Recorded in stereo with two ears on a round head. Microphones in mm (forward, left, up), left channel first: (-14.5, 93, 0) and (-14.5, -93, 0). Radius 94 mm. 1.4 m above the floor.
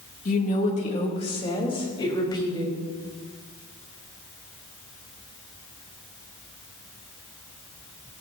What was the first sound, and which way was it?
A woman speaking, 40° left (ahead or behind).